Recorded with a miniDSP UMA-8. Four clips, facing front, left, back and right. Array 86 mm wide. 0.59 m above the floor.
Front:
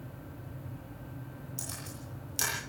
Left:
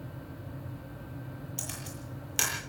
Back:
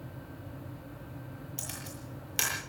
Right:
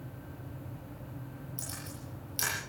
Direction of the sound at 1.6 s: 130° left.